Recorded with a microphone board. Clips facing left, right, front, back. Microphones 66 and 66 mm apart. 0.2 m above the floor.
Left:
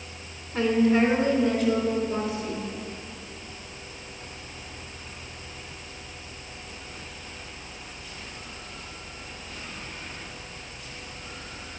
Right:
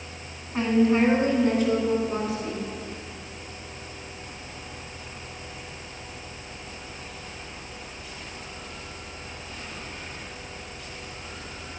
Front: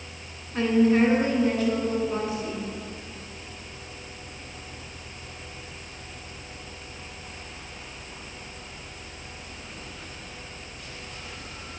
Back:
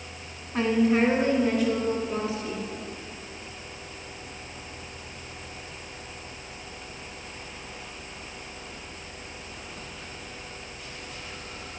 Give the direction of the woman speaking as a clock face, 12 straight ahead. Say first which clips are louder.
Even, front 2 dB; 4 o'clock.